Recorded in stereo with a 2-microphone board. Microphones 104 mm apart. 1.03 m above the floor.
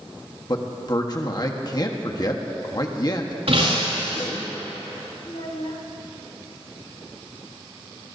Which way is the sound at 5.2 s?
80° left.